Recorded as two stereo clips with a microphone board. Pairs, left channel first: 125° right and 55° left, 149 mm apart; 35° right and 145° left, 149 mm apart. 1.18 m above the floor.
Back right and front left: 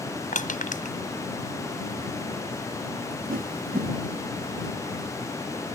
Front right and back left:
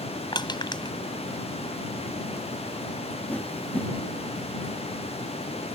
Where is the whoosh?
45° left.